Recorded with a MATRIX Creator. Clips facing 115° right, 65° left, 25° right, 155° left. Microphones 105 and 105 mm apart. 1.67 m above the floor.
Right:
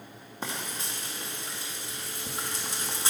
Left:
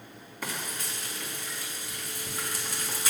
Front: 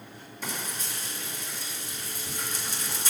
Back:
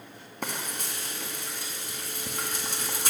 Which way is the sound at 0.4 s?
175° right.